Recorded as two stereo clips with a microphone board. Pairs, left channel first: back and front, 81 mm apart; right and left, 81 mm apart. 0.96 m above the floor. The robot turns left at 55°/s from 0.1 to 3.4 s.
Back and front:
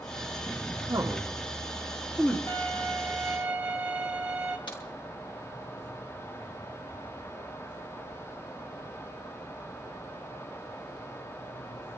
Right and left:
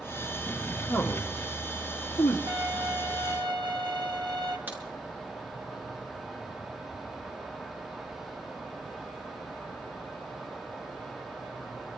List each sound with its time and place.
0.9 s a man speaking: 35° right, 1.8 m; by 2.4 s 120° right, 1.8 m
2.5 s a violin: 125° left, 2 m; by 4.6 s 75° left, 2 m
4.7 s a crack: 155° left, 5.5 m